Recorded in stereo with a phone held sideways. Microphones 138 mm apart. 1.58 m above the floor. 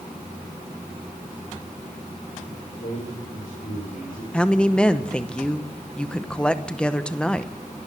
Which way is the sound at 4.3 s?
5° left (ahead or behind).